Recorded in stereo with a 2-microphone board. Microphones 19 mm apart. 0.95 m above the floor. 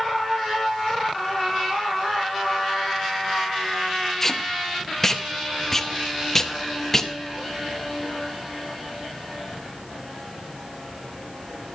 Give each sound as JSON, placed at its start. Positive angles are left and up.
{"t": 4.2, "sound": "tape being pulled", "side_deg": 20, "distance_m": 0.7}